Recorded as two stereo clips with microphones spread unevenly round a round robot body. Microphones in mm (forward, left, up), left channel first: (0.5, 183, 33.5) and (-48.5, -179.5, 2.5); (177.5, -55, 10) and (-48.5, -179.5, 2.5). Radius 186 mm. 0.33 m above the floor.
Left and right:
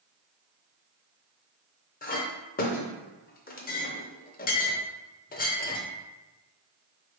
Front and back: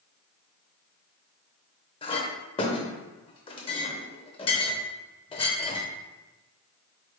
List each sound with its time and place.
2.0 s a clink: 55° left, 0.6 m